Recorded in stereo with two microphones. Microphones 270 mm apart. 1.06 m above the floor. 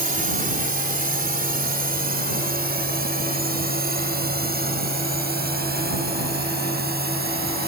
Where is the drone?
30° right (ahead or behind); by 7.7 s 35° right (ahead or behind).